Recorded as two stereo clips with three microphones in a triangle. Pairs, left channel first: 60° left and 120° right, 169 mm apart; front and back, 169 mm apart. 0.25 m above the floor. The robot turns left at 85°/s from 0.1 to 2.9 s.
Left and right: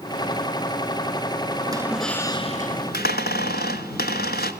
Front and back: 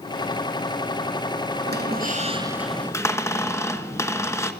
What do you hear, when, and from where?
1.7 s a squeak: straight behind, 1.2 m; by 4.5 s 75° left, 1.2 m